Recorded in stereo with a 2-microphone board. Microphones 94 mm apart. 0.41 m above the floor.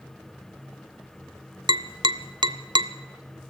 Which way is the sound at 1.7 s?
50° right (ahead or behind).